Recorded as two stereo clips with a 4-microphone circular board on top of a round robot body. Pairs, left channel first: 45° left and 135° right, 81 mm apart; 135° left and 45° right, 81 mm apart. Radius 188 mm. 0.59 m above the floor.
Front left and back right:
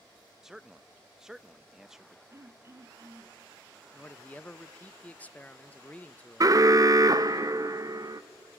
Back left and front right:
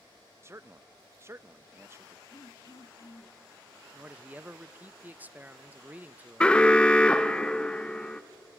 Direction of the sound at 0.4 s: 55° right.